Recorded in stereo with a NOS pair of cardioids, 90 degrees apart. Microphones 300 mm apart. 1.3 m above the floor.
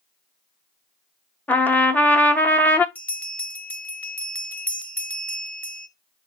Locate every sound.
1.5 s a trumpet: 5° left, 0.5 m
3.0 s a bell: 5° left, 0.8 m